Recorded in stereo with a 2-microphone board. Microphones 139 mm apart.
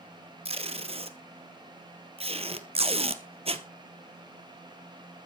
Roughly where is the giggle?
No giggle in this recording.